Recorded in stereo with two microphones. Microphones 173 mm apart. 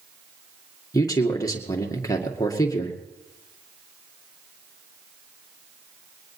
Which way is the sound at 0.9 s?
20° left (ahead or behind).